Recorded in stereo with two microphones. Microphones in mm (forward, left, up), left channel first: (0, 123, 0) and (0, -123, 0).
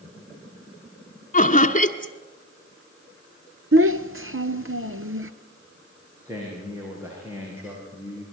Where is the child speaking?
60° right (ahead or behind), 1.2 m.